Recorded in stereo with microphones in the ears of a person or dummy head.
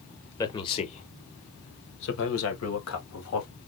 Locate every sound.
0.4 s a man speaking: 20° left (ahead or behind), 1.5 m; by 3.5 s 85° left, 2.5 m